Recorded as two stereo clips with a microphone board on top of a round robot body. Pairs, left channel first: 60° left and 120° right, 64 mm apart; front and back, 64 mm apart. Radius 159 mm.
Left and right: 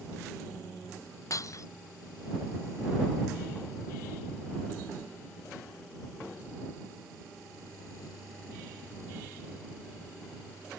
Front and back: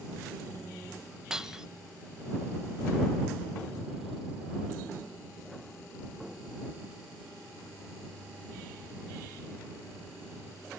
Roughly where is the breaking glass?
Left.